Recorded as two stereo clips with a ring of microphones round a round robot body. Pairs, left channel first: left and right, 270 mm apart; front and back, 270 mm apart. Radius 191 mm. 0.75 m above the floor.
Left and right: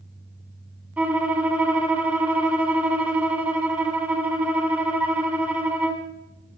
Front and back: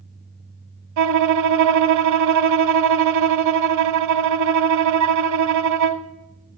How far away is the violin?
About 1.2 m.